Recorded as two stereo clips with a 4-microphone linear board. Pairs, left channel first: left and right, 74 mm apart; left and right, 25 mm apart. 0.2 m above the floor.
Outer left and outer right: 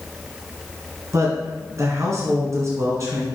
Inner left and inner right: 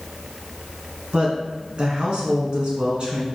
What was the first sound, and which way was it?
A woman speaking, 45° right (ahead or behind).